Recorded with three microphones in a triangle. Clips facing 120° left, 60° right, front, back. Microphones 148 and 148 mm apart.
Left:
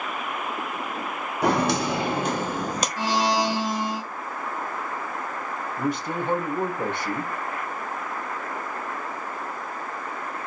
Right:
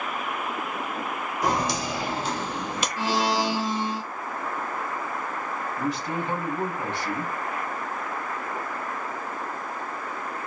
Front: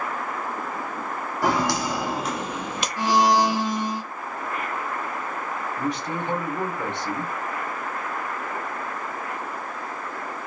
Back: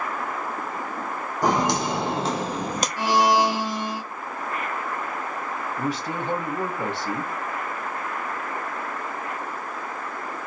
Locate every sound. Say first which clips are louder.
1.4 s footsteps: left 4 dB, back 1 dB; 110° left, 1.4 m; by 2.9 s 155° left, 0.8 m
3.0 s a blender: left 1 dB, front 1 dB; 70° left, 2 m
5.8 s a man speaking: left 3 dB, even; 95° left, 2 m